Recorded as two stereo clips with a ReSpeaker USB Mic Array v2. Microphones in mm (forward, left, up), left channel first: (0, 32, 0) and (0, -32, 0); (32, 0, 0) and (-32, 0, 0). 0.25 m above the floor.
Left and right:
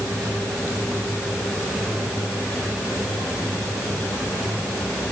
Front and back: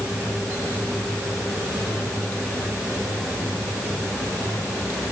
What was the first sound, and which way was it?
Only background noise.